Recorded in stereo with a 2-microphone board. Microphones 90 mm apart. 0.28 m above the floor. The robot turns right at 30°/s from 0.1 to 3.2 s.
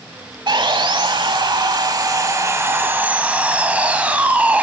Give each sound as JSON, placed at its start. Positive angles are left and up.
{"t": 0.5, "sound": "sawing", "azimuth_deg": -100, "distance_m": 0.8}